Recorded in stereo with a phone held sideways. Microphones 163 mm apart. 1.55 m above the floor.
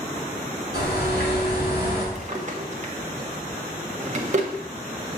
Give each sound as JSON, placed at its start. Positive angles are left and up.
{"t": 0.7, "sound": "a bird", "side_deg": 70, "distance_m": 2.5}
{"t": 2.1, "sound": "a drawer", "side_deg": -45, "distance_m": 0.9}